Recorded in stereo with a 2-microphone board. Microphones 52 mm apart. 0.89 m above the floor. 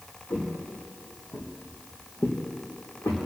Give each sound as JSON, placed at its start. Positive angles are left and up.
{"t": 0.3, "sound": "footsteps", "side_deg": 30, "distance_m": 4.0}